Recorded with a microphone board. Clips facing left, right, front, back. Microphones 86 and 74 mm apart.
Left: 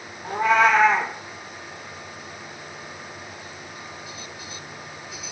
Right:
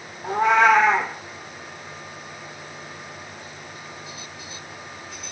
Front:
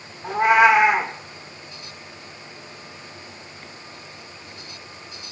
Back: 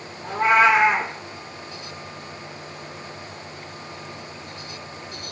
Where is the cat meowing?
75° right, 0.9 m.